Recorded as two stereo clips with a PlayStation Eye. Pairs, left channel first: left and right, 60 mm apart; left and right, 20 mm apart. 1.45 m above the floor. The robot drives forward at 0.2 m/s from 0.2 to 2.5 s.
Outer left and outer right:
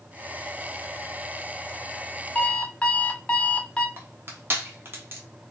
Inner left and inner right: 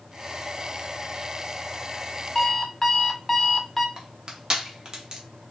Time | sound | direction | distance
2.4 | an alarm clock | 20° left (ahead or behind) | 0.9 m
4.0 | crushing | 40° right (ahead or behind) | 1.2 m